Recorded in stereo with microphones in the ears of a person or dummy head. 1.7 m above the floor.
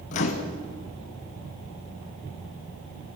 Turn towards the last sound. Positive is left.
turn(degrees=30)  # may be behind; listen again after turning